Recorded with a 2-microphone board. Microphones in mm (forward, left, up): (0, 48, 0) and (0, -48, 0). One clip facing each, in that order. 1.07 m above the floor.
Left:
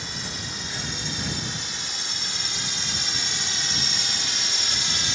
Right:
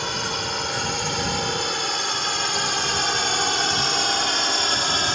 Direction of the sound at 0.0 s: 65° right (ahead or behind).